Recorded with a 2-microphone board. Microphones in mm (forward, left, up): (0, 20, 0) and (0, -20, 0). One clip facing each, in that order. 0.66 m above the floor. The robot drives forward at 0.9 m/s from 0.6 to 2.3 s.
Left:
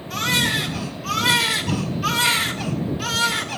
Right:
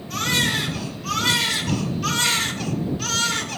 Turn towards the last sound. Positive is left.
turn(degrees=10)  # may be behind; listen again after turning